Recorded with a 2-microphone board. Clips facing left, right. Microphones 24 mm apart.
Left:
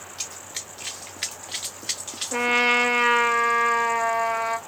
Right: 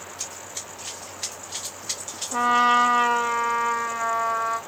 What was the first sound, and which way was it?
Running footsteps, 45° left (ahead or behind).